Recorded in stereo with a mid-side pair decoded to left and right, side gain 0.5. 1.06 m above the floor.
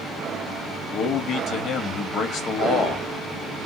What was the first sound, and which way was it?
A man speaking, 60° left.